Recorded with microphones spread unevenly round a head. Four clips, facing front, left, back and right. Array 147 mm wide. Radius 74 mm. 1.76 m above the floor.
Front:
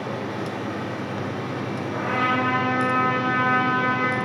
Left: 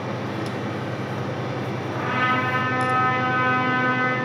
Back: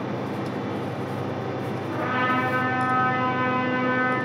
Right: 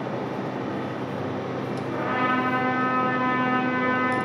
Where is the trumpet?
140° right, 4.5 m.